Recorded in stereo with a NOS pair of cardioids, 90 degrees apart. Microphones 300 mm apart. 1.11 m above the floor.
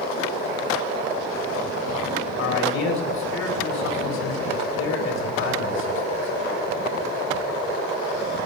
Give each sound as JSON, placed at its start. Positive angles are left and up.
{"t": 2.4, "sound": "a man speaking", "azimuth_deg": 65, "distance_m": 3.5}